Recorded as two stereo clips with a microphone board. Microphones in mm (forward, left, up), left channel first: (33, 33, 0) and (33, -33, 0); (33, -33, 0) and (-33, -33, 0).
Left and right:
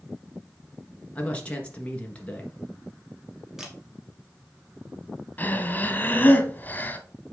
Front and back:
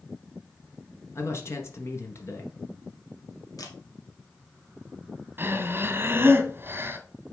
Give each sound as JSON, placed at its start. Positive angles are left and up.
{"t": 1.1, "sound": "a man speaking", "azimuth_deg": 25, "distance_m": 2.0}
{"t": 3.6, "sound": "a camera shutter", "azimuth_deg": -5, "distance_m": 2.5}
{"t": 5.4, "sound": "breathing", "azimuth_deg": 140, "distance_m": 1.2}